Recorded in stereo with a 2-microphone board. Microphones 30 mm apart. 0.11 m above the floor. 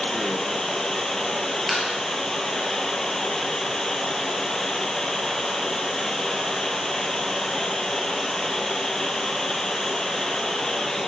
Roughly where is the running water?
Centre.